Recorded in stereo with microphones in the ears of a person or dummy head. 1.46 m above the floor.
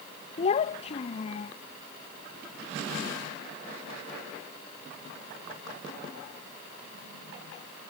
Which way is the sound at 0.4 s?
35° left (ahead or behind).